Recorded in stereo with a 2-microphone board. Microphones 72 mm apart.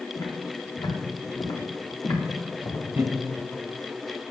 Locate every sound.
0.1 s footsteps: 85° left, 4.5 m; by 2.8 s 90° left, 3.5 m
3.0 s laughter: 25° right (ahead or behind), 1.3 m